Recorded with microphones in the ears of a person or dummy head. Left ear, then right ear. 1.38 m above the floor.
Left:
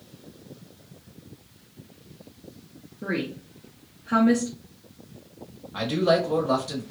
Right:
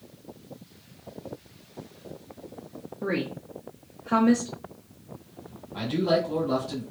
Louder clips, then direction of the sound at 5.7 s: Left 3 dB; 50° left (ahead or behind).